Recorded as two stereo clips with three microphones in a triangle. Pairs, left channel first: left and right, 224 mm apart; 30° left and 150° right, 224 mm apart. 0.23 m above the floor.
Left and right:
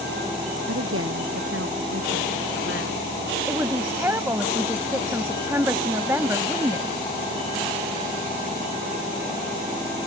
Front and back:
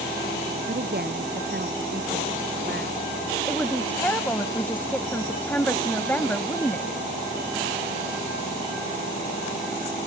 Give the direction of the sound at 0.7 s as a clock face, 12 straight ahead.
4 o'clock.